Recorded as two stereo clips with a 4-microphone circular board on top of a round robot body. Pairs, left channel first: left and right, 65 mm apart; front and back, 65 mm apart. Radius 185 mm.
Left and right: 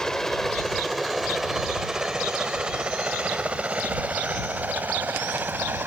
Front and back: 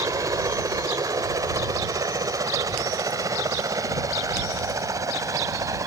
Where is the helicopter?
170° left; by 5.9 s 150° right.